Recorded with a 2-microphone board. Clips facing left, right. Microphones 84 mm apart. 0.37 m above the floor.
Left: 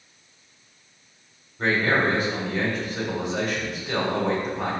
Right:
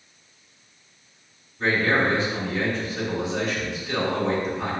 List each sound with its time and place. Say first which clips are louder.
1.6 s a man speaking: even; 55° left (ahead or behind), 1.8 m